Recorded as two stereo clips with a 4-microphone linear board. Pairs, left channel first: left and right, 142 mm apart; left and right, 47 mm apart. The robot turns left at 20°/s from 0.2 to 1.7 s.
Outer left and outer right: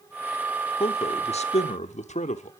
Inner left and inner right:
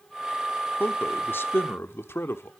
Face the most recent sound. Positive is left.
turn(degrees=55)  # may be behind; listen again after turning